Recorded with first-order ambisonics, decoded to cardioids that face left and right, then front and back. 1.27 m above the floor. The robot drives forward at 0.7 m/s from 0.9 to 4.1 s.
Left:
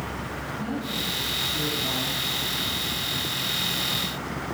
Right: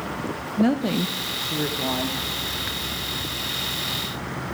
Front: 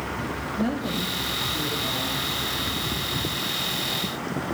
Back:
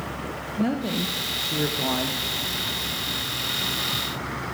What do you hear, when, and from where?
0.6 s a woman speaking: 100° right, 0.6 m; by 2.2 s 150° right, 1.2 m